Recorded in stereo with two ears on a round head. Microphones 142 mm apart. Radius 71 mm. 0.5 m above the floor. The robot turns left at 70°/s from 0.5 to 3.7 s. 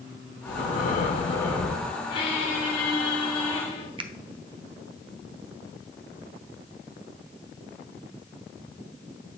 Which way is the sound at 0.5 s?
80° left.